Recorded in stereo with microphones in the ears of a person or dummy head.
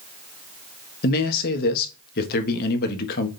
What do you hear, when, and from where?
1.0 s a man speaking: 55° left (ahead or behind), 1.5 m